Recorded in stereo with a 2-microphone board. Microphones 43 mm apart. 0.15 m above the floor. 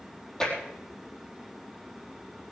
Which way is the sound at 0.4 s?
15° left (ahead or behind).